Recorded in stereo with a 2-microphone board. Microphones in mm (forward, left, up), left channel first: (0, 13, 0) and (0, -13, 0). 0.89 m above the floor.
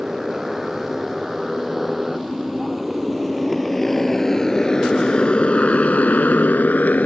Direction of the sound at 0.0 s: 10° right (ahead or behind).